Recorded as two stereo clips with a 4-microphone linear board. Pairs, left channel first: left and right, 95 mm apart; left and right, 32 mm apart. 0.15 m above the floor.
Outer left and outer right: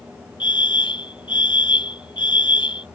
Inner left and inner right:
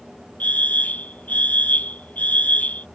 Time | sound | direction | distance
0.4 | a fire alarm | 55° left (ahead or behind) | ?